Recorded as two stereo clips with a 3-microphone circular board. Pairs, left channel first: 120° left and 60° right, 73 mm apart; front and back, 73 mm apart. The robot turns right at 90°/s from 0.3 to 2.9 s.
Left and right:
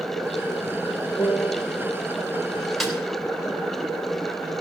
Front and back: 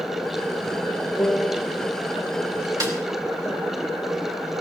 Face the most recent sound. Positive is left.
turn(degrees=-140)